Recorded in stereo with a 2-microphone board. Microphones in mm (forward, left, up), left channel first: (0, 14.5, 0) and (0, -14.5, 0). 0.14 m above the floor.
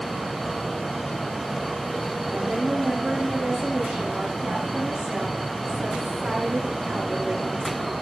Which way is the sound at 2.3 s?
30° right (ahead or behind).